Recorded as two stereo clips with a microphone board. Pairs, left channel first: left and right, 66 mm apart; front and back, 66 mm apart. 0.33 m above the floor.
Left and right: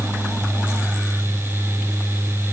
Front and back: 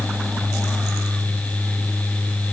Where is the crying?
No crying in this recording.